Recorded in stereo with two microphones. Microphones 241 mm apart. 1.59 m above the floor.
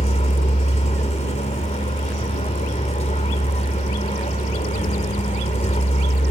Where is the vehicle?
30° left (ahead or behind).